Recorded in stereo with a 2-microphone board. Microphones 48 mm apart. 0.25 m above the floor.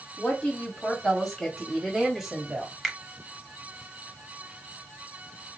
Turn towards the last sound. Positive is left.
turn(degrees=5)  # may be behind; listen again after turning